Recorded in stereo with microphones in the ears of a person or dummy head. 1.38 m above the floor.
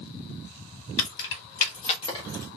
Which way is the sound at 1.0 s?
65° left (ahead or behind).